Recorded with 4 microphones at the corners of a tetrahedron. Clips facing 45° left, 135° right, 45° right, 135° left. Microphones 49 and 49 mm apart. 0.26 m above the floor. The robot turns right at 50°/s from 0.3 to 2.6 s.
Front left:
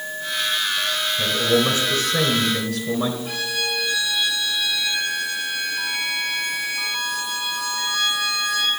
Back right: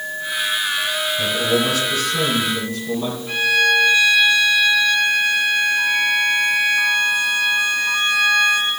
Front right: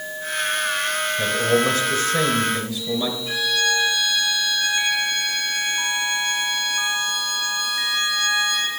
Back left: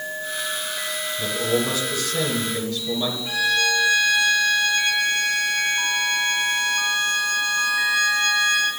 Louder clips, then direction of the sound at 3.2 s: Back right 9 dB, back left 2 dB; 70° left.